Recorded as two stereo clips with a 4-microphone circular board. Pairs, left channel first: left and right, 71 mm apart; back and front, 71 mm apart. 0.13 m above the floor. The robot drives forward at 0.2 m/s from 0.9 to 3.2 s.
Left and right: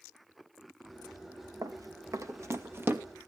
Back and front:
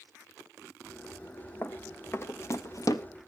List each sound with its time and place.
1.6 s running footsteps: 120° right, 1.9 m; by 3.0 s 150° right, 1.6 m